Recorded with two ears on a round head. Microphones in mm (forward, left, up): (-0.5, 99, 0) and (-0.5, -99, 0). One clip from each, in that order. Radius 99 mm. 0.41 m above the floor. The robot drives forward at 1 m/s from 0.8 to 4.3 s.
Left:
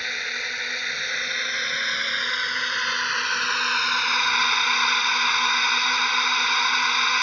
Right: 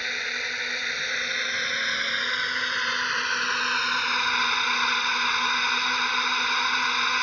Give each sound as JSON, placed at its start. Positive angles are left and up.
{"t": 0.0, "sound": "a drone", "side_deg": 15}